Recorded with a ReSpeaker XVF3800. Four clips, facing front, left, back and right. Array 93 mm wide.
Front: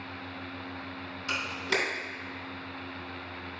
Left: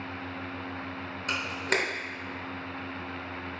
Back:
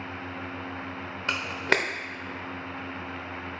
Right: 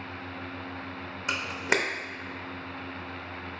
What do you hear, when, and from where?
1.3 s a camera shutter: 160° right, 0.8 m